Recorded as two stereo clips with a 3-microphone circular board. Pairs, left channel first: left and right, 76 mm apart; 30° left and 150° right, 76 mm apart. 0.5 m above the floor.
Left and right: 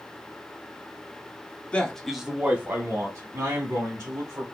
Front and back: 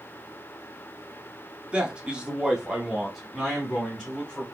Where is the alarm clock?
I don't hear an alarm clock.